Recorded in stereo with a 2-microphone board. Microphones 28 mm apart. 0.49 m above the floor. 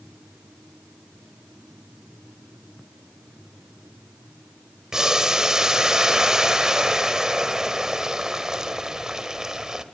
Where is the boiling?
25° right (ahead or behind), 1.8 m.